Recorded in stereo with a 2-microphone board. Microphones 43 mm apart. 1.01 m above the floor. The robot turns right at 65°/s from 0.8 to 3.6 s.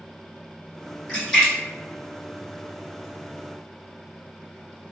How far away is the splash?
About 1.6 m.